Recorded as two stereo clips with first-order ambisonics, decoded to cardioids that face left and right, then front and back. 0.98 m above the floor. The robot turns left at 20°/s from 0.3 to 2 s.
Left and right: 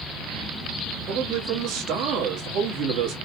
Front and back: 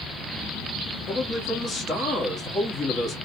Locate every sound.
1.1 s a man speaking: 55° right, 2 m; by 3.2 s 70° right, 2 m